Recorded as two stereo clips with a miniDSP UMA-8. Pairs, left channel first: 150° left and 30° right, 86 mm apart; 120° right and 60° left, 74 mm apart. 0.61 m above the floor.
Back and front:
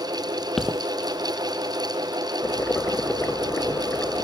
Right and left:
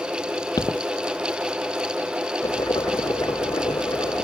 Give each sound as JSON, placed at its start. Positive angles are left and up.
{"t": 0.6, "sound": "footsteps", "azimuth_deg": -125}
{"t": 2.4, "sound": "boiling", "azimuth_deg": -140}